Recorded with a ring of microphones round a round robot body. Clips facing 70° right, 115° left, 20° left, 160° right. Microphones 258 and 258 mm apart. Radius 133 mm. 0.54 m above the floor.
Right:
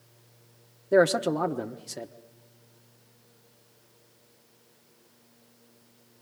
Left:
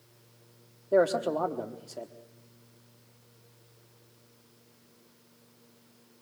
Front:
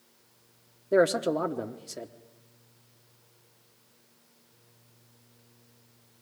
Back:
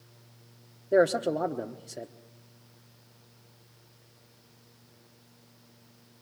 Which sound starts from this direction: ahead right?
A man speaking, at 0.9 s.